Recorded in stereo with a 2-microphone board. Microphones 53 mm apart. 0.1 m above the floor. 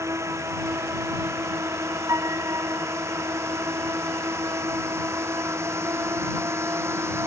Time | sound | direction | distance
0.0 | a drone | 65° right (ahead or behind) | ?
2.1 | a piano | 70° right (ahead or behind) | ?